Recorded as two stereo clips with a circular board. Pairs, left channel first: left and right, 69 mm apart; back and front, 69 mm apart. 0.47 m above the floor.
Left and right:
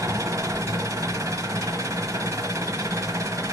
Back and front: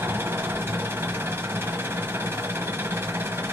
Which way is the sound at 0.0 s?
50° right.